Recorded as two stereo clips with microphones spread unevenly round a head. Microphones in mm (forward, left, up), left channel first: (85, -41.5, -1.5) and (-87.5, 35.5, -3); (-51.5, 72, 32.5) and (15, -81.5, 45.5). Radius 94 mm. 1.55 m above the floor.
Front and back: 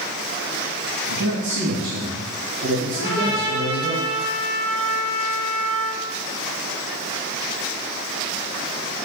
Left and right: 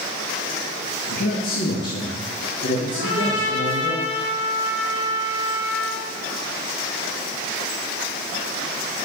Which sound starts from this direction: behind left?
A man speaking, at 1.1 s.